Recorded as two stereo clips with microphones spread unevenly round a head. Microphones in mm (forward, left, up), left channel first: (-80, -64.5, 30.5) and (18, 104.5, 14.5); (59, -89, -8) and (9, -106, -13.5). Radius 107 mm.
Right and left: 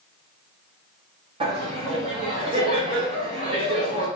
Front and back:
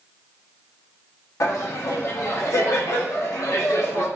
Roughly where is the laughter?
Ahead.